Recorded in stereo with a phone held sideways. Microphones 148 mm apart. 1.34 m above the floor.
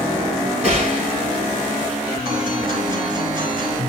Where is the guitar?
30° right (ahead or behind), 4 m.